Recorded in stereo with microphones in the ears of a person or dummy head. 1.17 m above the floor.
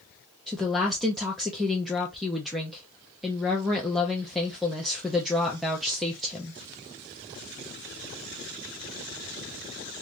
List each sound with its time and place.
0.5 s a woman speaking: centre (ahead or behind), 0.5 m